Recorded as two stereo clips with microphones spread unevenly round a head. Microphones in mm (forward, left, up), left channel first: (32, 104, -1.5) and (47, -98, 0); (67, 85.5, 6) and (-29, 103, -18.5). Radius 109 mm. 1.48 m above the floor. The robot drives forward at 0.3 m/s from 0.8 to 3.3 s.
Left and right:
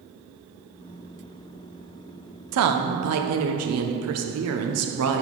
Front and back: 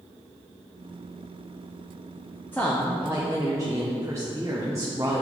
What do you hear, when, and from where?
2.5 s a woman speaking: 90° right, 0.6 m; by 5.2 s 110° right, 0.6 m